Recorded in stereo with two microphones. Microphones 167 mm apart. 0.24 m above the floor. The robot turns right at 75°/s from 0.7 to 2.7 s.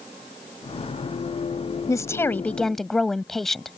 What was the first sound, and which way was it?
A woman speaking, 20° left (ahead or behind).